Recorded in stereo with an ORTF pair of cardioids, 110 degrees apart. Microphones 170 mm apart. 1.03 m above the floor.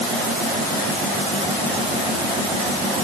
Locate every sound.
Only background noise.